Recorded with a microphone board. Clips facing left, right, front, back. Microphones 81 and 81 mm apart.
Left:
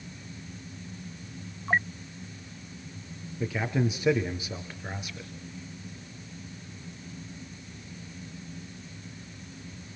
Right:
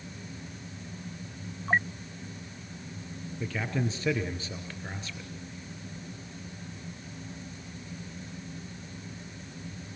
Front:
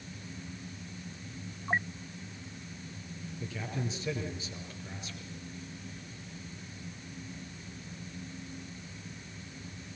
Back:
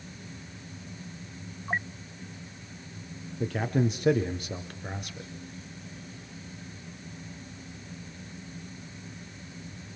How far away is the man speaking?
About 3.5 m.